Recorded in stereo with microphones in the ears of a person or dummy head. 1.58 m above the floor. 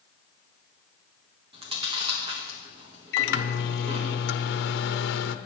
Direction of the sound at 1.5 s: 35° right (ahead or behind).